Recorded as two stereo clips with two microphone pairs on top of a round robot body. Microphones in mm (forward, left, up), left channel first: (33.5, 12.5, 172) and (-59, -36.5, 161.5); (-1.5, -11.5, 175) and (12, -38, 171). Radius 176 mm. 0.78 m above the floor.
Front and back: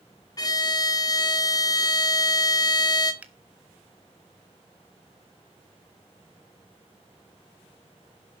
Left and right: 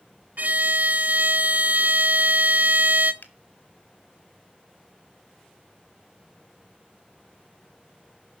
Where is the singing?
I don't hear singing.